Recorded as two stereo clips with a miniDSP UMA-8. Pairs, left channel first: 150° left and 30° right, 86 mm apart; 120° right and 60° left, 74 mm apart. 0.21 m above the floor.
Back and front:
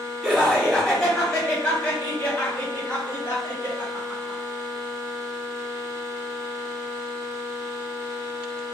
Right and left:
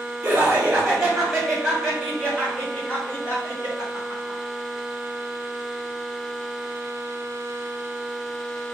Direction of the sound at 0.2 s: 40° left.